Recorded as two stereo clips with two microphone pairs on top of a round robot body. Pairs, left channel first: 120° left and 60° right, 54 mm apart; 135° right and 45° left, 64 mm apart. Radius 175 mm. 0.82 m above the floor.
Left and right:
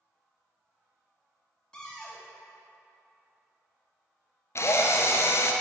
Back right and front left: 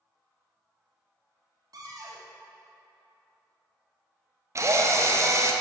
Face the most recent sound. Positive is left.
turn(degrees=85)